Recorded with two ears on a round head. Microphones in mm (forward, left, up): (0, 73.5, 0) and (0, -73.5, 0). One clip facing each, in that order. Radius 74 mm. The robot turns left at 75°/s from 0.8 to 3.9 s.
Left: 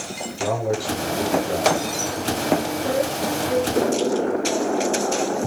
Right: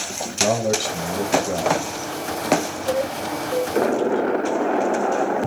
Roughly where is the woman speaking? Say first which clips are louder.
Left 1 dB; behind left.